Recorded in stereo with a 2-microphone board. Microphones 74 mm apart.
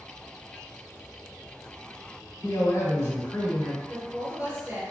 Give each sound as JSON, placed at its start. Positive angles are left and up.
{"t": 2.4, "sound": "a man speaking", "side_deg": 40, "distance_m": 1.3}
{"t": 3.9, "sound": "a woman speaking", "side_deg": -20, "distance_m": 1.2}